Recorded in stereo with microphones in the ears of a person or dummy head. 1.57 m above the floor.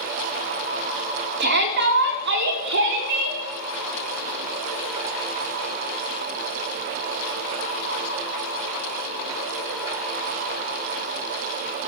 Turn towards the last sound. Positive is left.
turn(degrees=-75)  # may be behind; listen again after turning